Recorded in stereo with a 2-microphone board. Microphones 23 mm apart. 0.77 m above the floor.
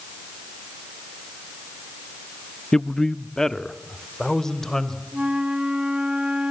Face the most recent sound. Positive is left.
turn(degrees=-45)  # may be behind; listen again after turning